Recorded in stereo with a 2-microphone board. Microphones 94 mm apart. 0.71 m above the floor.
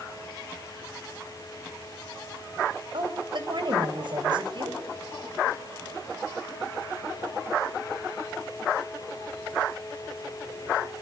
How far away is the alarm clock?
No alarm clock in this recording.